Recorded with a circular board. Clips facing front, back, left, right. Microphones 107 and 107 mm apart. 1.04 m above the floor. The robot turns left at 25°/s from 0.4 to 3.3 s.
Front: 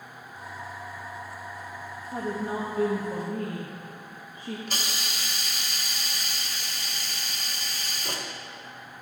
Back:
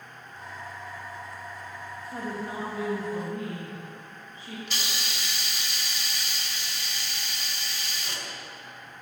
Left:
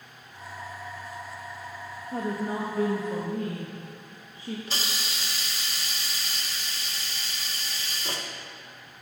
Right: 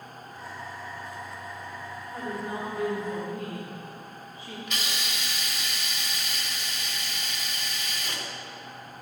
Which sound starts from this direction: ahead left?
A hiss, at 4.7 s.